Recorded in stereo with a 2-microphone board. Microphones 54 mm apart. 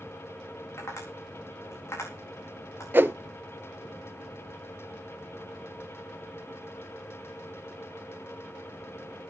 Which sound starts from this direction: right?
A whoosh, at 2.9 s.